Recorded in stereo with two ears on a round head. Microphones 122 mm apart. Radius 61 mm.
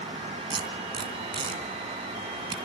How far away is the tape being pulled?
About 3 m.